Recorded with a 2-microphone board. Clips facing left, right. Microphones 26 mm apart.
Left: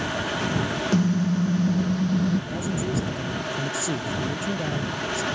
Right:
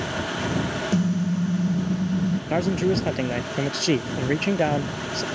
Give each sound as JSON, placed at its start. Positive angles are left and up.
{"t": 0.9, "sound": "a car horn", "side_deg": 30}
{"t": 2.5, "sound": "a man speaking", "side_deg": -60}